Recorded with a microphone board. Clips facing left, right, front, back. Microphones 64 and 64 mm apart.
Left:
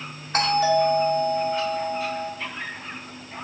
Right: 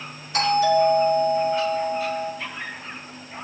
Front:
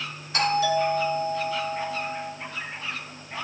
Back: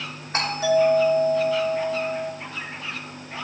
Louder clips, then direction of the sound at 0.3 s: Right 1 dB, back 2 dB; 130° left.